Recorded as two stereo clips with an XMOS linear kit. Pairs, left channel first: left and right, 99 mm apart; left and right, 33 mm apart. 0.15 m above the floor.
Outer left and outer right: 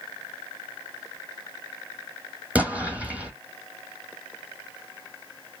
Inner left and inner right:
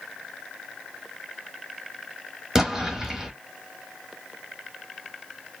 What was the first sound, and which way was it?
An explosion, 15° right (ahead or behind).